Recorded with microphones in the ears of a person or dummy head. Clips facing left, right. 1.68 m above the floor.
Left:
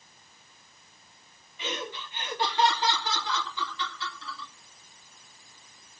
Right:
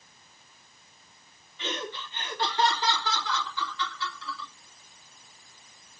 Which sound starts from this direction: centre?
Laughter, at 1.6 s.